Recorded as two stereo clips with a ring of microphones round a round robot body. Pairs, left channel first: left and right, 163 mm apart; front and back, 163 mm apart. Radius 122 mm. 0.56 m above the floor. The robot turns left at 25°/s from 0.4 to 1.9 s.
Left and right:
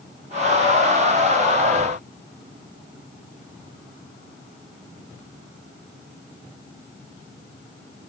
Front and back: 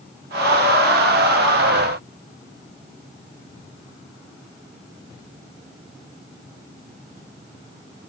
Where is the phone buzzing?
I don't hear a phone buzzing.